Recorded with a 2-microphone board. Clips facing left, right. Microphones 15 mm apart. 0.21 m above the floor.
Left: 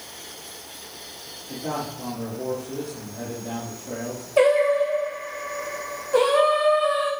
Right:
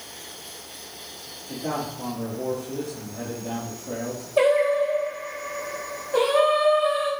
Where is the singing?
35° left (ahead or behind), 3.5 m.